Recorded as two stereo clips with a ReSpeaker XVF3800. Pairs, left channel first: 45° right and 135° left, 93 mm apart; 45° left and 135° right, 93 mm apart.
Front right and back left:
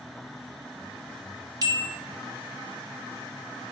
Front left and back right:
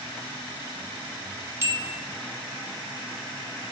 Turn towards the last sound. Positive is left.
turn(degrees=170)